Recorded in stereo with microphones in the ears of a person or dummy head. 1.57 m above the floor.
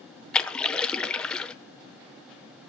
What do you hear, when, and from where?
0.3 s a splash: 5° left (ahead or behind), 1.1 m